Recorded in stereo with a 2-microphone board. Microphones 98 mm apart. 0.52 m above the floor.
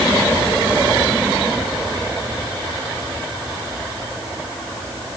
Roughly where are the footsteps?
I don't hear footsteps.